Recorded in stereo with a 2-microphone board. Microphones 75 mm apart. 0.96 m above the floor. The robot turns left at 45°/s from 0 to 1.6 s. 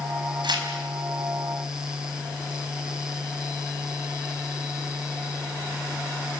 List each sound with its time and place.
0.4 s tearing paper: 90° right, 4 m; by 0.7 s 80° right, 4 m